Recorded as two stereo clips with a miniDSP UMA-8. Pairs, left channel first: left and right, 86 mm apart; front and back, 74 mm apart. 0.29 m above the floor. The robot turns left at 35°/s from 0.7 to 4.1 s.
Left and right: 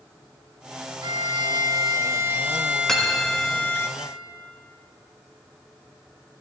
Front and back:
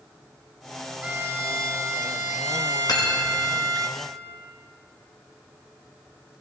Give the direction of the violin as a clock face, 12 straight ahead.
4 o'clock.